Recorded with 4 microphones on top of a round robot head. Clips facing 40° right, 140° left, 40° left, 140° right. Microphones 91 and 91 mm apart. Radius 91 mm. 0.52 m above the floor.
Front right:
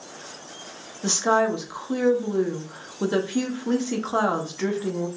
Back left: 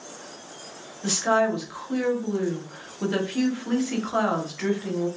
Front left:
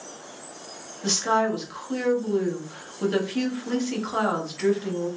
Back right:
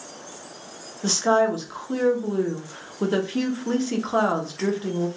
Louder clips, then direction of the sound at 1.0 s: Front right 1 dB, back right 3 dB; 95° right.